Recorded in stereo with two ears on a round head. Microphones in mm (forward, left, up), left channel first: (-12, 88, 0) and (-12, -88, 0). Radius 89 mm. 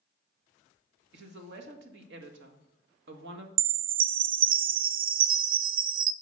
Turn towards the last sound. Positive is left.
turn(degrees=-45)  # may be behind; listen again after turning